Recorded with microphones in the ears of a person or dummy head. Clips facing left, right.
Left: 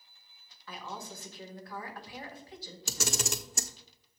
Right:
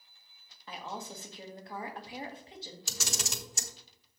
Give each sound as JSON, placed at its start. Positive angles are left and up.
{"t": 0.7, "sound": "a woman speaking", "side_deg": -20, "distance_m": 1.7}
{"t": 2.9, "sound": "a camera shutter", "side_deg": 45, "distance_m": 1.0}